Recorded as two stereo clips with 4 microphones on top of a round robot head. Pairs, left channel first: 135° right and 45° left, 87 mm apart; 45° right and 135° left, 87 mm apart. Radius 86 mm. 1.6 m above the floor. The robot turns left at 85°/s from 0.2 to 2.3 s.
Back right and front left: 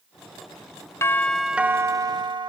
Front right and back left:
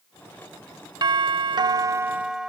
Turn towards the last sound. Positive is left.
turn(degrees=55)